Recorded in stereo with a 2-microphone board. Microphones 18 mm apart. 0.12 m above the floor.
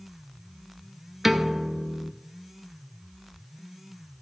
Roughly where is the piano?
Centre.